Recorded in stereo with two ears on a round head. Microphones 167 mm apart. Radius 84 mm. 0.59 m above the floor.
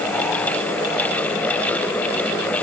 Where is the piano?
I don't hear a piano.